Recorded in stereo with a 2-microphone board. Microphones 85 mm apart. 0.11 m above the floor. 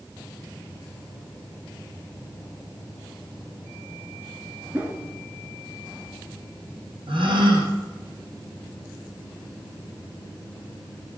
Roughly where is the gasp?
Right.